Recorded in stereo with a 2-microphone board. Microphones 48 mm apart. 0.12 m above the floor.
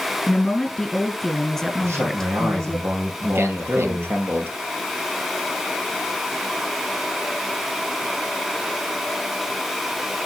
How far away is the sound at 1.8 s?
About 3.5 m.